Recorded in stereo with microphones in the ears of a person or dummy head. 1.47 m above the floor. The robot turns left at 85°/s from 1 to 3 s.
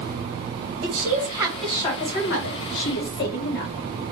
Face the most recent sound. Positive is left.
turn(degrees=60)